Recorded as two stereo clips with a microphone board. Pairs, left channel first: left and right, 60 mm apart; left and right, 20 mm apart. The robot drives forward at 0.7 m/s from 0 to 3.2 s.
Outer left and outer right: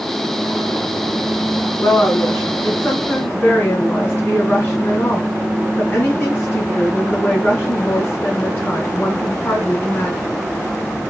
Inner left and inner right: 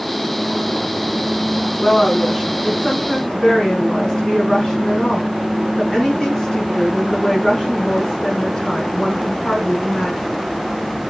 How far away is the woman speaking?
About 3.5 m.